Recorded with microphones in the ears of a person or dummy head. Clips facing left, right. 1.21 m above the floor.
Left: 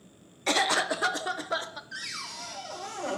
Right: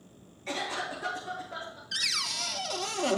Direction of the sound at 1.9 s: 45° right (ahead or behind).